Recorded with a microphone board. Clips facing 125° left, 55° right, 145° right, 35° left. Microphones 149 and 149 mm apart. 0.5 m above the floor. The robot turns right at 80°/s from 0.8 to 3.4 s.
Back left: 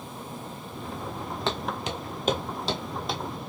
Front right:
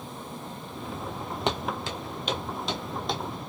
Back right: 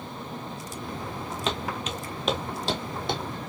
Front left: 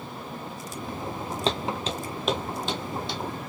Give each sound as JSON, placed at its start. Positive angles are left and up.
{"t": 1.5, "sound": "footsteps", "azimuth_deg": 5, "distance_m": 0.6}